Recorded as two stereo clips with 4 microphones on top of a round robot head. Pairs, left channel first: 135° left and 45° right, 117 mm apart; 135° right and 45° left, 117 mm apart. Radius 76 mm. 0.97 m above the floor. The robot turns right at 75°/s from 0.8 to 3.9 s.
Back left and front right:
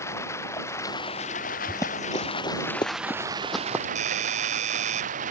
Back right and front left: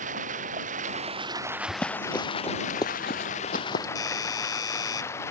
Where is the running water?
65° left; by 5.3 s 65° right.